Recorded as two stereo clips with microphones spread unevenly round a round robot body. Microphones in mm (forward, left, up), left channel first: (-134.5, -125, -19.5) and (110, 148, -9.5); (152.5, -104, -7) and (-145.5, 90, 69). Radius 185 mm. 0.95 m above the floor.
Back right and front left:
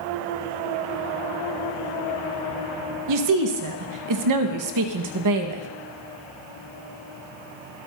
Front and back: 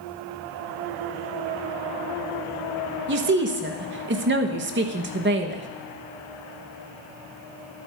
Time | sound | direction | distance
3.1 | a woman speaking | 80° left | 1.2 m